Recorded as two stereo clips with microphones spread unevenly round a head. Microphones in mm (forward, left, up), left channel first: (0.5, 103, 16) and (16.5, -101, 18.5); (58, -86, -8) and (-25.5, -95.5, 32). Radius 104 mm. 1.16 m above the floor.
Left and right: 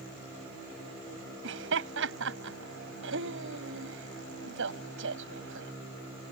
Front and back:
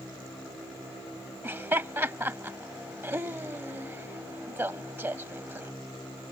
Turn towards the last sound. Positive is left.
turn(degrees=-115)